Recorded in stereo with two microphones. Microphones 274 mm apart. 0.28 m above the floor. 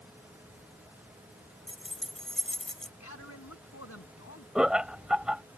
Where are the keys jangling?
Centre (ahead or behind).